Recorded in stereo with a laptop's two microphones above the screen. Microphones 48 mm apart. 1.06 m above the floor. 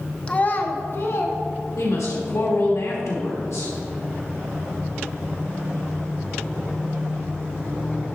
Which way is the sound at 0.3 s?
25° left (ahead or behind).